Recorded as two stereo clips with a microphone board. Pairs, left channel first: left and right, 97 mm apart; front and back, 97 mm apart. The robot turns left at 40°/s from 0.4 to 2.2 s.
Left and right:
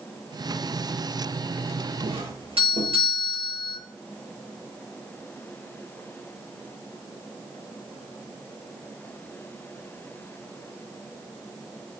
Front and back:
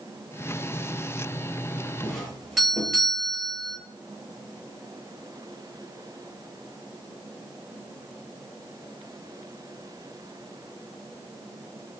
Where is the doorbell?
85° right, 10 m; by 3.8 s 90° right, 10 m.